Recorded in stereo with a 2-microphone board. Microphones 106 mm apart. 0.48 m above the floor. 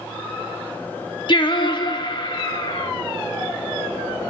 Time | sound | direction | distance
1.3 | singing | 45° left (ahead or behind) | 0.6 m